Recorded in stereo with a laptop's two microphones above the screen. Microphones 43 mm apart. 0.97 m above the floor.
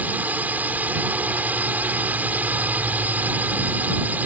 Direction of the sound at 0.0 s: 40° right (ahead or behind).